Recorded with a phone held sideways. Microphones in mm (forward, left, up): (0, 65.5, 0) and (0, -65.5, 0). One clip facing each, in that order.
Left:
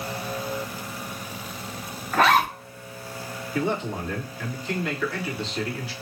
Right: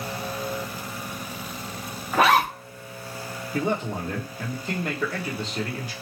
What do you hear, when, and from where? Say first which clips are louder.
2.1 s a zipper: even; 10° right (ahead or behind), 1.1 m
3.5 s a man speaking: even; 45° right (ahead or behind), 1.4 m